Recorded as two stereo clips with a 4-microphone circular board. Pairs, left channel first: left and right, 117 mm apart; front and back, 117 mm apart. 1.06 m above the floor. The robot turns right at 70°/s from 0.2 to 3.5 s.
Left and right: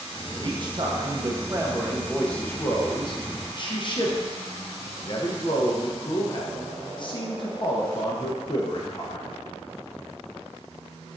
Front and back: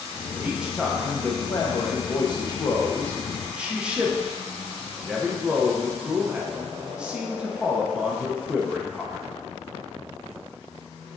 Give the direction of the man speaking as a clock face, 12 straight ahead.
4 o'clock.